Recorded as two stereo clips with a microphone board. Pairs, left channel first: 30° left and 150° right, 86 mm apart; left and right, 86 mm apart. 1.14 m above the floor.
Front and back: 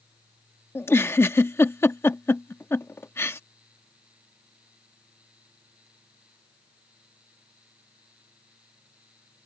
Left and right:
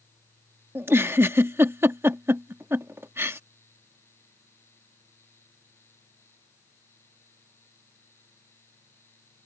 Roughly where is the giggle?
Ahead right.